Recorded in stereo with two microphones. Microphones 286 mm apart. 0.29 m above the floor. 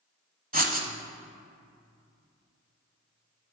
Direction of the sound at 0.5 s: 30° right (ahead or behind).